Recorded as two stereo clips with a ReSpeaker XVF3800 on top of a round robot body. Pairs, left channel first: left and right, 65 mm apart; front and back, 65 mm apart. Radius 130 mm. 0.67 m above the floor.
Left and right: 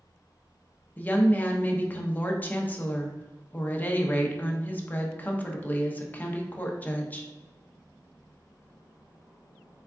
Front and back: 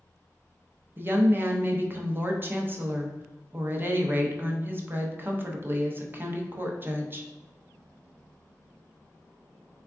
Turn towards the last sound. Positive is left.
turn(degrees=145)